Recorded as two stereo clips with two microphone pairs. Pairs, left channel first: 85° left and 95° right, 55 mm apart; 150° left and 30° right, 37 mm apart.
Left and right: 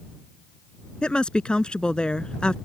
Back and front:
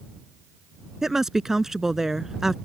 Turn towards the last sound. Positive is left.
turn(degrees=30)